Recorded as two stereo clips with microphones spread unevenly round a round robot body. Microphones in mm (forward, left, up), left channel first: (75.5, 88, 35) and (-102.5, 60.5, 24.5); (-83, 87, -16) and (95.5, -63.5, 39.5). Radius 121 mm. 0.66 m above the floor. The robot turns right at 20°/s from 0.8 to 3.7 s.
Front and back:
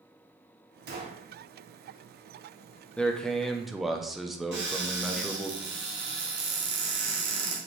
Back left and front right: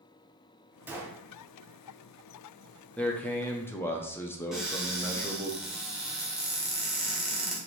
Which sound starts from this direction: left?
A man speaking, at 3.0 s.